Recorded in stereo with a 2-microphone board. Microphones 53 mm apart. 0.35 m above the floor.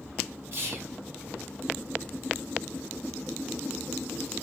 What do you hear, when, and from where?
0.5 s whispering: 45° right (ahead or behind), 2.5 m